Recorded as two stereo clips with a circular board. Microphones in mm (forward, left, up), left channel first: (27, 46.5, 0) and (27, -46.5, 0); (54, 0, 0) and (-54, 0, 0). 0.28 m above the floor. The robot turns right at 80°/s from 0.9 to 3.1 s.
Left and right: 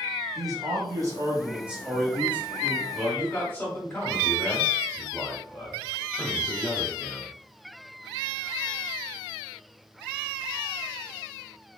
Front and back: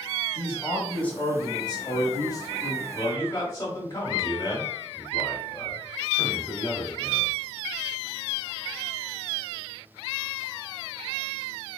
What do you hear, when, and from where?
0.3 s a man speaking: 80° right, 1.2 m; by 2.8 s 75° left, 1.2 m
2.9 s a man speaking: 20° left, 1.0 m; by 7.4 s 35° left, 1.0 m